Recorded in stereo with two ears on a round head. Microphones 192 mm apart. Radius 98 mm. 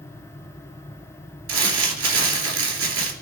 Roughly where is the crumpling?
Right.